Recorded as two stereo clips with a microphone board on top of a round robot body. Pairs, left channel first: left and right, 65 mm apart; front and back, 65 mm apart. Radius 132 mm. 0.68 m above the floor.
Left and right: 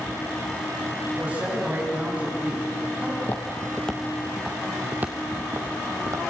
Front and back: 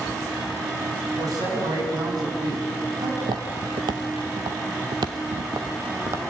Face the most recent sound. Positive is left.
turn(degrees=-130)